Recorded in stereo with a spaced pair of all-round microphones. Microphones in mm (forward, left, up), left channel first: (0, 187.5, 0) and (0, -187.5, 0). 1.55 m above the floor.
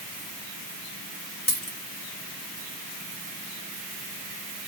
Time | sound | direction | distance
1.5 | a dropped coin | 25° left (ahead or behind) | 1.7 m